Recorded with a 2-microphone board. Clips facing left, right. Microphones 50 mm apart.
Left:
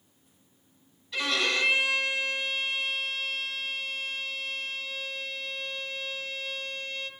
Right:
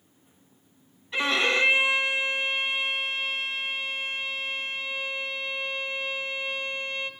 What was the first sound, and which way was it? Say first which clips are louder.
A violin: right 4 dB; 30° right (ahead or behind).